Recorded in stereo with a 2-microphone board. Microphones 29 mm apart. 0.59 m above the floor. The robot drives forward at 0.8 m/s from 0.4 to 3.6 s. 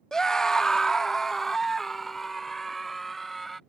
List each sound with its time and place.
0.1 s a scream: 20° left (ahead or behind); by 3.6 s 5° left (ahead or behind)